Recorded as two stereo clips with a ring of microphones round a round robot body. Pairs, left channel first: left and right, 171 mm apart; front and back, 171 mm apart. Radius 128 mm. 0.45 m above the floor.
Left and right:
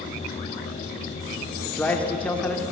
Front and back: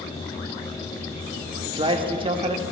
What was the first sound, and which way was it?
A man speaking, 165° left.